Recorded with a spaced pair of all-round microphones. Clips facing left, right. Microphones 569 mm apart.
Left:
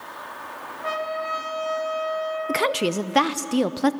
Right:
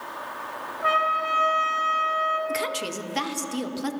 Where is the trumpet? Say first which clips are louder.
Left 1 dB; 5° right (ahead or behind), 1.6 m.